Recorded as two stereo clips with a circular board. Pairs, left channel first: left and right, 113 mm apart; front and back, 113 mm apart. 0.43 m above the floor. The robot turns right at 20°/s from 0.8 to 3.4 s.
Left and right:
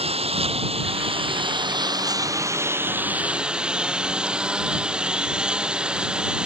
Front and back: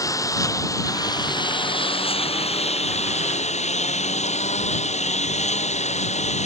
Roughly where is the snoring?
I don't hear snoring.